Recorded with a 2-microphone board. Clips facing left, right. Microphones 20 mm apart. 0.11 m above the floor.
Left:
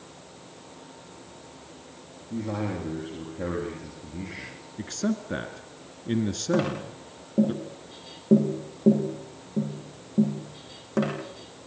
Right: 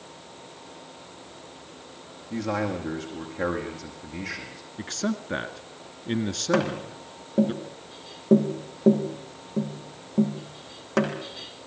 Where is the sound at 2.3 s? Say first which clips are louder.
Right 3 dB; 55° right (ahead or behind), 6 m.